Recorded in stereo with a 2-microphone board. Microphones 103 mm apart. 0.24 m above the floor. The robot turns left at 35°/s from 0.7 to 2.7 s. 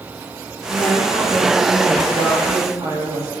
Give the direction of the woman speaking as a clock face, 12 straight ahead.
11 o'clock.